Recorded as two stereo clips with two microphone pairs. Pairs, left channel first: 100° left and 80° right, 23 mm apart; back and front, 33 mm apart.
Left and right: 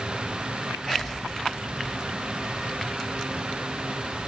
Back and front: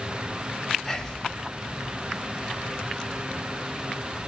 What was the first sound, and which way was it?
Whispering, 120° right.